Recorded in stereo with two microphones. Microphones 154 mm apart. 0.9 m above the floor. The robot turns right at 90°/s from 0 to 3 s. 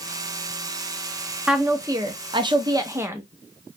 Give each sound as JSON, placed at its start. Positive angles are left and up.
{"t": 1.5, "sound": "a woman speaking", "side_deg": -5, "distance_m": 0.5}